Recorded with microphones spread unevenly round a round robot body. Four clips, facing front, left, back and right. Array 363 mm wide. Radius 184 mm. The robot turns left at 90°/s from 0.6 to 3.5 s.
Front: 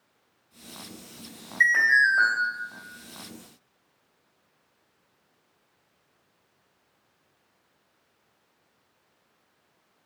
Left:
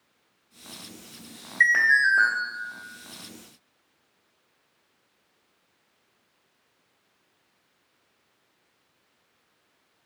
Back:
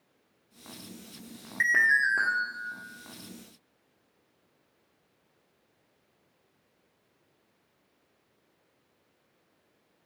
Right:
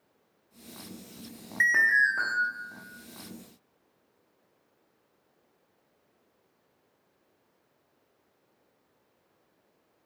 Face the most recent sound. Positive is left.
turn(degrees=60)